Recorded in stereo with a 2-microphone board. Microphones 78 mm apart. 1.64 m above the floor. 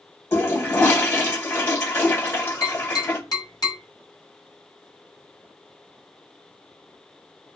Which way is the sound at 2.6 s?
55° left (ahead or behind).